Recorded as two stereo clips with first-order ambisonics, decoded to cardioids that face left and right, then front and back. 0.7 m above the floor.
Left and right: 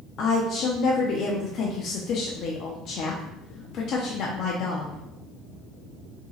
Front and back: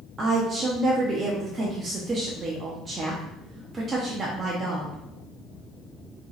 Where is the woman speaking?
120° left, 0.7 m.